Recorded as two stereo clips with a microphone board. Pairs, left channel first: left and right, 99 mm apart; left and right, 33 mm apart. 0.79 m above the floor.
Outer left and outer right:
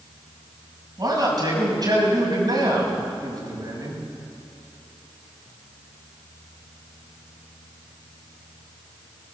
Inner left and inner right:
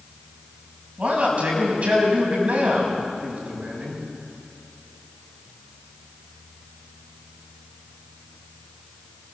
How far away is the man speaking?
About 5.5 m.